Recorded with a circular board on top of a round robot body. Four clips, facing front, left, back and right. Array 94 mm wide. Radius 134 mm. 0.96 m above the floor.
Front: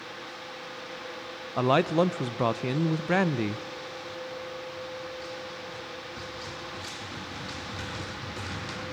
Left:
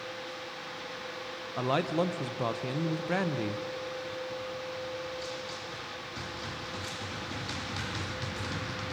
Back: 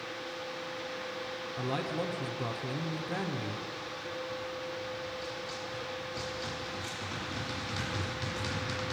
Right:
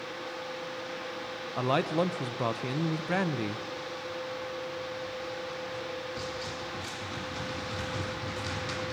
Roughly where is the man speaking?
Ahead.